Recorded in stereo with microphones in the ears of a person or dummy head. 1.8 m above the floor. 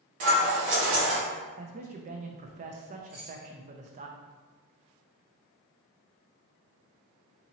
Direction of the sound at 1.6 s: 35° right (ahead or behind).